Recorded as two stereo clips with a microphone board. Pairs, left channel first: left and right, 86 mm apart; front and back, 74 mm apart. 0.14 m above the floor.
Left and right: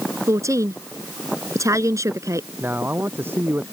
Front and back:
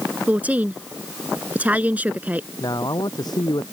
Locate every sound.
0.3 s a woman speaking: 120° right
2.6 s a man speaking: 25° right